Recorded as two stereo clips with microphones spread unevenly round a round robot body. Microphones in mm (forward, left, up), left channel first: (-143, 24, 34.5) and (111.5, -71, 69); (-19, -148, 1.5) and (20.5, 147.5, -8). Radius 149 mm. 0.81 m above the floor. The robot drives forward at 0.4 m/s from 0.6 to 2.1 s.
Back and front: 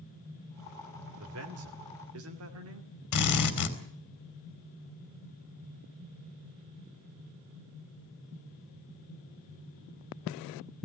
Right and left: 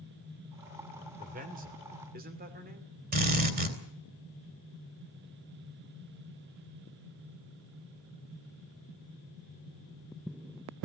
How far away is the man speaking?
About 3 m.